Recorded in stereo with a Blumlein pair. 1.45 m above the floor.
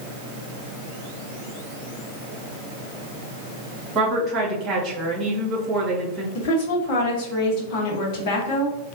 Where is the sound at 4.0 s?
30° right, 1.6 m.